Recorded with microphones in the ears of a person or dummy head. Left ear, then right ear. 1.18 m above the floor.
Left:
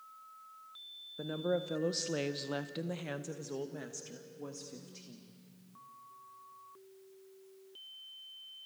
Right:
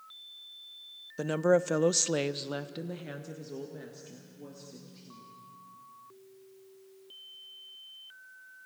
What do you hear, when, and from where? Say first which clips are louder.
1.2 s a woman speaking: right 9 dB; 70° right (ahead or behind), 0.7 m; by 5.3 s 50° left (ahead or behind), 1.9 m